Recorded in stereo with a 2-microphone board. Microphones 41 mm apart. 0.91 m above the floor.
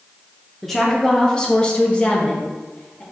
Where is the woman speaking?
5° left (ahead or behind), 0.8 m; by 3.0 s 25° left (ahead or behind), 1.7 m.